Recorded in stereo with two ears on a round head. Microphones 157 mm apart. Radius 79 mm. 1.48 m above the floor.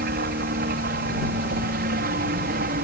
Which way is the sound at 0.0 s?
55° right (ahead or behind).